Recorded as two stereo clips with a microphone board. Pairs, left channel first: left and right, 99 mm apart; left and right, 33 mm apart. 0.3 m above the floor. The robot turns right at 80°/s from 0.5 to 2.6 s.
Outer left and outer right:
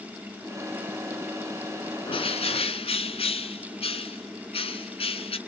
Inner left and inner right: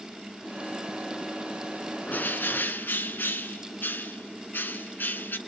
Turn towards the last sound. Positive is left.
turn(degrees=105)